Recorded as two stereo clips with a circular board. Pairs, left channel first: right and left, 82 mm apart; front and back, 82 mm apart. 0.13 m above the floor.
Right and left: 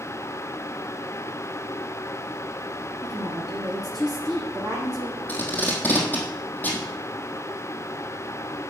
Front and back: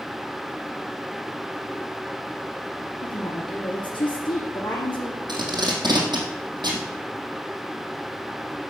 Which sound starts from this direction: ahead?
A woman speaking, at 3.0 s.